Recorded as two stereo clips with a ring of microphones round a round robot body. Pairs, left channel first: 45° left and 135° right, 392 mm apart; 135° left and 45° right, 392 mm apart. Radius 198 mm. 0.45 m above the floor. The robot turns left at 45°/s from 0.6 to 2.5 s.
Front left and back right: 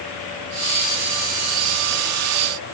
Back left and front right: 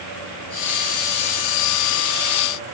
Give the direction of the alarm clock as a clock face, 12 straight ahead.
I don't hear an alarm clock.